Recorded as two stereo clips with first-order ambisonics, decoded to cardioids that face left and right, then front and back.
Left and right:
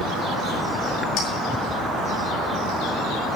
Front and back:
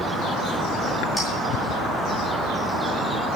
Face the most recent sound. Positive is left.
turn(degrees=75)